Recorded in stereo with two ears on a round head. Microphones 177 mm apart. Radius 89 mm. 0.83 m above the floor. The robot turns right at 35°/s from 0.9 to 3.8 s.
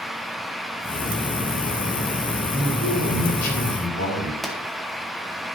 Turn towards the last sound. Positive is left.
turn(degrees=0)  # may be behind; listen again after turning